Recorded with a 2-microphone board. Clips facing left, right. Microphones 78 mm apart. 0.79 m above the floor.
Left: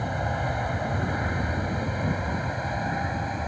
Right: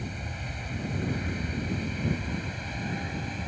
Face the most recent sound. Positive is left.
turn(degrees=35)  # may be behind; listen again after turning